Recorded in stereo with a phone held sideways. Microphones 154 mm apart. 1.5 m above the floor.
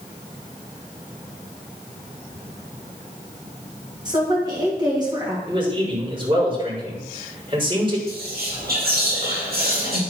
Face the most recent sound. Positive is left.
turn(degrees=-85)